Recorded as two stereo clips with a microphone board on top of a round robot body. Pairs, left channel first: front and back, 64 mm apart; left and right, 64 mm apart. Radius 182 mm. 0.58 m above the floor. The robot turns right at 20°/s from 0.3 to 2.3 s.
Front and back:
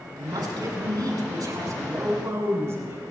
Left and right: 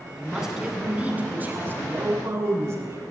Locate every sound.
0.2 s a man speaking: 175° right, 7.5 m; by 3.1 s 135° right, 7.5 m